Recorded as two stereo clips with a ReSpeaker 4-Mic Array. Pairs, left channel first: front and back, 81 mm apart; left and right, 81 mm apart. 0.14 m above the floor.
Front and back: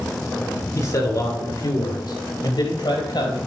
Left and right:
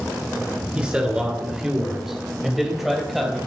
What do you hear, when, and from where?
0.8 s a man speaking: 20° right, 2.5 m; by 3.4 s straight ahead, 4.5 m